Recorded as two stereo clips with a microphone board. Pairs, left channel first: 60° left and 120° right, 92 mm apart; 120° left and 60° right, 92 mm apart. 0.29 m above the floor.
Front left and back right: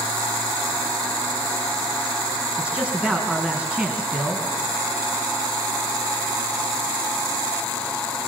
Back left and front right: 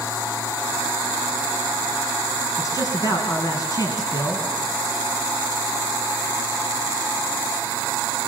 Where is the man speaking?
165° left, 3.5 m.